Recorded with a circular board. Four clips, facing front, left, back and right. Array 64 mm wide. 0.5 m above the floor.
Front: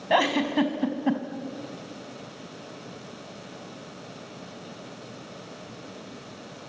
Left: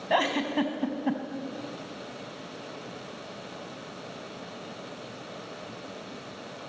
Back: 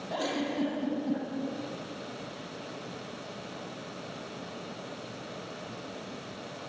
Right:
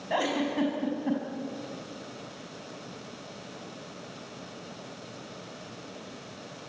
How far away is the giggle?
About 3 m.